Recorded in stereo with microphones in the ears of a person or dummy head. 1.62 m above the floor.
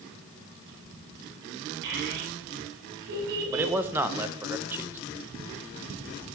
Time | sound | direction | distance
1.8 | a child speaking | 60° right (ahead or behind) | 10 m
3.5 | a man speaking | 10° right (ahead or behind) | 1.1 m